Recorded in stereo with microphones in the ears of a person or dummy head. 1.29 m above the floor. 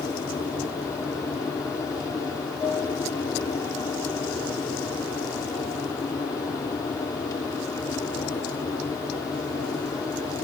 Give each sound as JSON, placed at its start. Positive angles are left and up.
{"t": 0.0, "sound": "an aircraft", "side_deg": 15}